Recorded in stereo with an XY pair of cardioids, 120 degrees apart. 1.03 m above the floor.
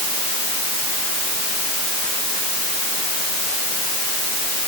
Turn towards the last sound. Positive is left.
No sound to turn to.